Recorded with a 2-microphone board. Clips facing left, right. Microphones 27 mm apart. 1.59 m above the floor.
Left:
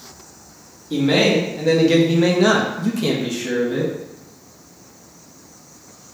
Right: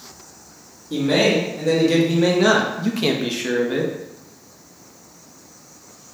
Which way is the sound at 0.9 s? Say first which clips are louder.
Left 1 dB; 35° left (ahead or behind).